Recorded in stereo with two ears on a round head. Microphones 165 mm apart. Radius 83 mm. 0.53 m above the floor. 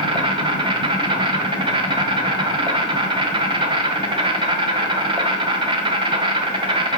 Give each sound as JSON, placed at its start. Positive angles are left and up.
{"t": 0.0, "sound": "an insect", "side_deg": -30, "distance_m": 1.0}